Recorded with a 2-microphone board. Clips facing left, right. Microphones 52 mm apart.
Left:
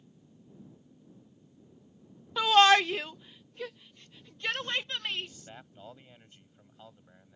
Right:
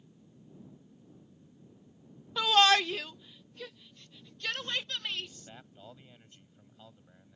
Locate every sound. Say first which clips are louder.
2.4 s a shout: left 3 dB; 10° left (ahead or behind); by 5.3 s 25° left (ahead or behind)
5.2 s a man speaking: left 2 dB; 15° left (ahead or behind)